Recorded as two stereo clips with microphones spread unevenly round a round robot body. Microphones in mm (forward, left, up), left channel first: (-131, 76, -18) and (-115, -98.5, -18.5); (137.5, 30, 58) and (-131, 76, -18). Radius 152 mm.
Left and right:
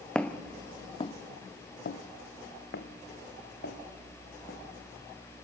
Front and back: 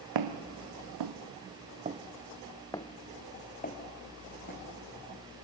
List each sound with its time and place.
0.1 s footsteps: straight behind, 1.5 m; by 5.3 s 40° left, 3.5 m